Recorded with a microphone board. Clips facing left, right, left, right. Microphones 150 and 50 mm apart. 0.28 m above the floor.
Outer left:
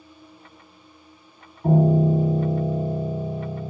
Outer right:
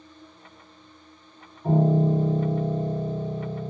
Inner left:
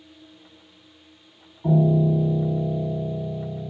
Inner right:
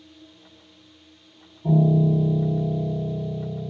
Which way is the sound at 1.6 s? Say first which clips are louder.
Outer left 3 dB, even; 60° left (ahead or behind).